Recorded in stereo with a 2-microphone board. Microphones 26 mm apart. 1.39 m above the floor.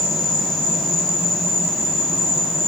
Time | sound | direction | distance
0.0 | an insect | 5° left (ahead or behind) | 2.5 m